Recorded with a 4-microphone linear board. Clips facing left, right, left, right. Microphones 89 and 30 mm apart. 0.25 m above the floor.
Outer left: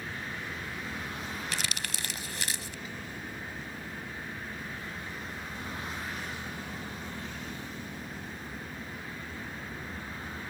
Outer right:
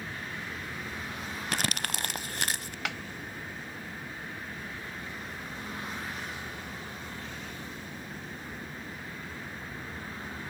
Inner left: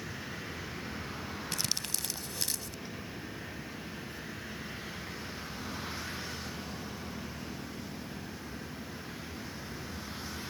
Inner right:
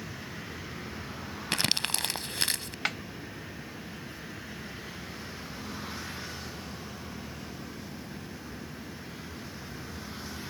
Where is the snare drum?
75° right (ahead or behind).